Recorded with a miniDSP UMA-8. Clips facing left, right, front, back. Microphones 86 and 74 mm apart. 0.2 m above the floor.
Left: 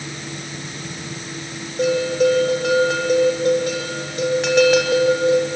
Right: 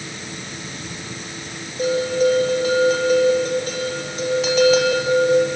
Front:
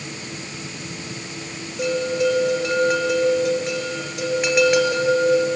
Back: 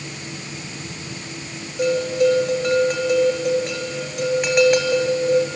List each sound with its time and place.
1.8 s a bell: 90° left, 3.5 m